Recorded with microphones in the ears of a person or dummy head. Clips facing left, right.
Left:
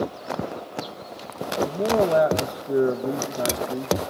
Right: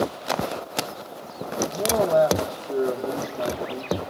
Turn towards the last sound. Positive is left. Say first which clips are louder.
# left 1 dB
turn(degrees=30)  # may be behind; listen again after turning